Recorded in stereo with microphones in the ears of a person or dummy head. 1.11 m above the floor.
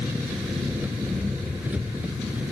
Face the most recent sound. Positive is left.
turn(degrees=-5)  # may be behind; listen again after turning